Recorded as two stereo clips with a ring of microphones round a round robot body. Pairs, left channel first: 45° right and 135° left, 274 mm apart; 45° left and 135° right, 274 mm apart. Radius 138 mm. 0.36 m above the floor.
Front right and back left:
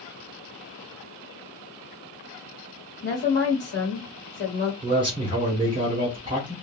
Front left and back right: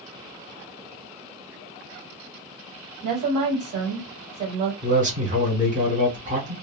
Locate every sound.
3.0 s a woman speaking: 95° right, 1.7 m
4.8 s a man speaking: 170° right, 1.4 m